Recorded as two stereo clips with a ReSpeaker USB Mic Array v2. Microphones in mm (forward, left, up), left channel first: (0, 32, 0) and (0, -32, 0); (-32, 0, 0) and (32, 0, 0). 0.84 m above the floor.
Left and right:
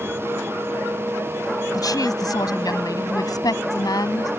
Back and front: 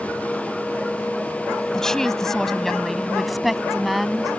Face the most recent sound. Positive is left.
turn(degrees=85)